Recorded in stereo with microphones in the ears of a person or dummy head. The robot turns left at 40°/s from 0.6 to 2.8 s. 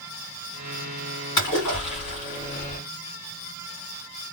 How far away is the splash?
About 1.9 m.